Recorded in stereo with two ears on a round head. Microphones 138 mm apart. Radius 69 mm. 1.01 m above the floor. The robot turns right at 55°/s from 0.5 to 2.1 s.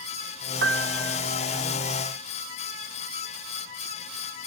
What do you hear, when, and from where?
0.6 s a piano: 105° right; by 1.2 s 70° right